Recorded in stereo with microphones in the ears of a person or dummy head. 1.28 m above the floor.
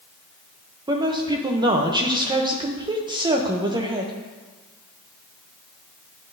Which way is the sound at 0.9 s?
20° right (ahead or behind).